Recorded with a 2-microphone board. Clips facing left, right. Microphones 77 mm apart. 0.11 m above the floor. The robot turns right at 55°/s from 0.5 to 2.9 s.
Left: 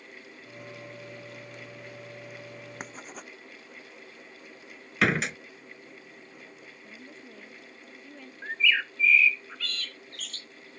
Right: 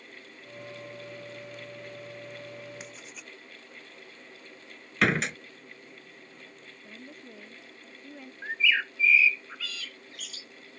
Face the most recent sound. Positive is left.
turn(degrees=-5)  # may be behind; listen again after turning